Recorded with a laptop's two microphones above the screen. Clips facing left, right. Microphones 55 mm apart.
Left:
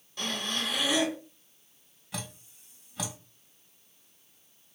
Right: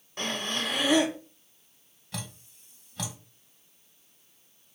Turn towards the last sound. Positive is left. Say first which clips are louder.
# even
turn(degrees=5)  # may be behind; listen again after turning